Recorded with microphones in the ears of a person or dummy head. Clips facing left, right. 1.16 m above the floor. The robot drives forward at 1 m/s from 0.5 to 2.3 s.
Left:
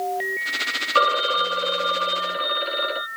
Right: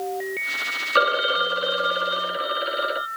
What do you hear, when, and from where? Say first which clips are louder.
0.9 s a phone ringing: even; 10° right (ahead or behind); by 3.1 s 5° right (ahead or behind)